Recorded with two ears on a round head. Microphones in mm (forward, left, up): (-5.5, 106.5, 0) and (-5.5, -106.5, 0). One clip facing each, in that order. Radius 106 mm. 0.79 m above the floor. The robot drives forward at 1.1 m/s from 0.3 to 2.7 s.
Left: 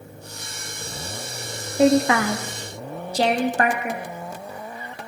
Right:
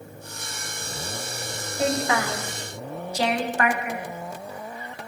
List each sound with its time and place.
1.8 s a woman speaking: 50° left (ahead or behind), 0.6 m; by 4.0 s 30° left (ahead or behind), 1.0 m